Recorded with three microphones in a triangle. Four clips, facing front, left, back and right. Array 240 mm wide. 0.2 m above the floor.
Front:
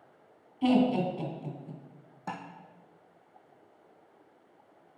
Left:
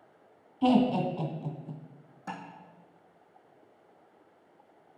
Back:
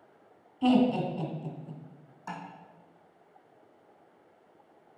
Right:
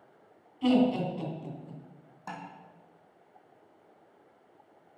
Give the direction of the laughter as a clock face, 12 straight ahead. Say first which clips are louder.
Left 1 dB, back 1 dB; 9 o'clock.